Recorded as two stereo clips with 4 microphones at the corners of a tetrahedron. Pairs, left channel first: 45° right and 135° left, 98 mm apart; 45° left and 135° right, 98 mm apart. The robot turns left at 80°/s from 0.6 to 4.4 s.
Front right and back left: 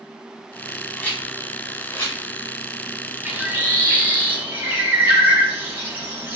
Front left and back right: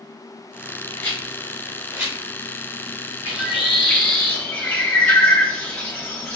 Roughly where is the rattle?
Ahead.